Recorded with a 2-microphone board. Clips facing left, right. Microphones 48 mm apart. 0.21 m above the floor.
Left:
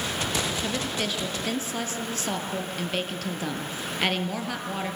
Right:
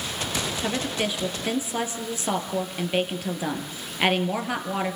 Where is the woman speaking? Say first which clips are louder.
Right 2 dB; 15° right (ahead or behind), 3.5 m.